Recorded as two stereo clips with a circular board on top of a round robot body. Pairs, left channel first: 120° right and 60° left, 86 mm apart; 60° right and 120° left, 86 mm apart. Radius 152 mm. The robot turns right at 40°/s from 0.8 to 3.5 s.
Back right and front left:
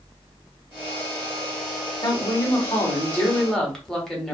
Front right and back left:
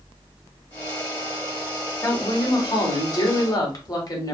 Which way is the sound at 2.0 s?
100° right.